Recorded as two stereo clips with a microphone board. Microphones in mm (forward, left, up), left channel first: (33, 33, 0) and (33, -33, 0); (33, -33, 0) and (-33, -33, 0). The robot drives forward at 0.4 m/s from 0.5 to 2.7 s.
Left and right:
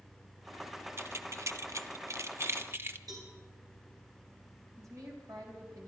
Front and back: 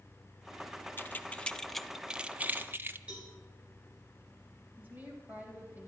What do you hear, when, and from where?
1.0 s keys jangling: 50° right, 0.7 m; by 3.0 s 130° right, 0.7 m
3.1 s a cowbell: 105° right, 4.5 m
4.8 s a woman speaking: 120° right, 4 m